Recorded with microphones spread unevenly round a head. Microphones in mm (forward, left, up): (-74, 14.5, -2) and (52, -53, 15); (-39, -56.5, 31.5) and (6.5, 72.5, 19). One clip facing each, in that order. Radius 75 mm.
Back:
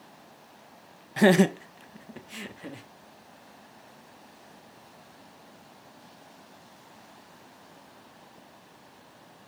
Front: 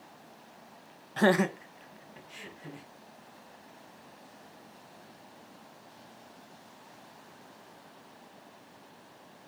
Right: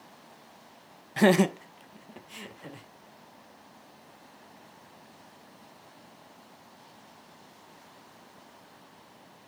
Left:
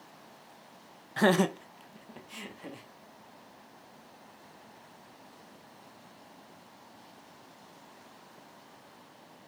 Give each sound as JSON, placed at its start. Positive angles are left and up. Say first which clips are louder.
{"t": 1.2, "sound": "laughter", "louder": "back 5 dB, right 4 dB", "azimuth_deg": -170, "distance_m": 0.5}